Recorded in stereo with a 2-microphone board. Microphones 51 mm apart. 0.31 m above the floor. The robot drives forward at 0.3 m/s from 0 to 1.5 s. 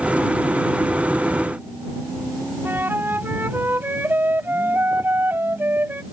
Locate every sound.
2.6 s a flute: 45° right (ahead or behind)